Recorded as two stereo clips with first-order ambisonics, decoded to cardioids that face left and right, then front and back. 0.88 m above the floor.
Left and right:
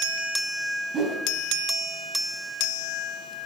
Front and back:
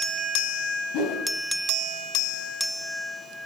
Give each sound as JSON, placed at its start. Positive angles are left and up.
{"t": 0.9, "sound": "a whoosh", "azimuth_deg": -25, "distance_m": 3.5}